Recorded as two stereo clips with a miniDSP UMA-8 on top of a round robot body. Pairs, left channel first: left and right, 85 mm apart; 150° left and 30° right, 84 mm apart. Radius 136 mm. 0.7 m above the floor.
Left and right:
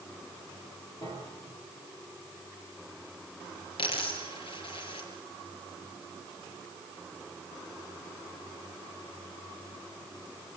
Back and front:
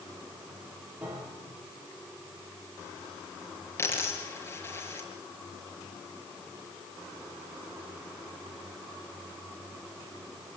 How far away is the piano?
About 5.5 m.